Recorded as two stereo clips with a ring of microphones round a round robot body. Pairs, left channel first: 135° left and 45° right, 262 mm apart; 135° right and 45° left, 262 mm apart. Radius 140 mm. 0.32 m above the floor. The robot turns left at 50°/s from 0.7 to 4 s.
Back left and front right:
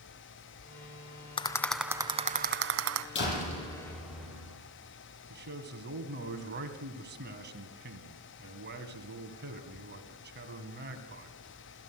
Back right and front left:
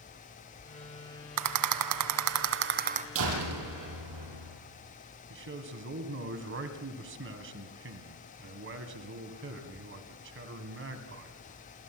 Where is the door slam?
85° left, 7 m; by 4.6 s 45° left, 7 m.